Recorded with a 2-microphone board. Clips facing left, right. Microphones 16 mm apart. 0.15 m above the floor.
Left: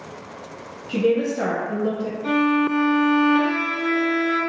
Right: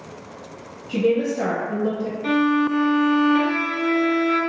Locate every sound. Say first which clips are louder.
0.9 s a woman speaking: even; 40° left (ahead or behind), 1.4 m
2.2 s a violin: even; 50° right (ahead or behind), 1.5 m